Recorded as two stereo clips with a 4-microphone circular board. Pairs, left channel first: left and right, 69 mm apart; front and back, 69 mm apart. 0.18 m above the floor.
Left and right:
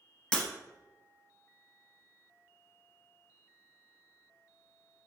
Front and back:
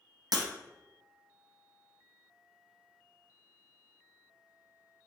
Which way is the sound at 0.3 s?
160° left.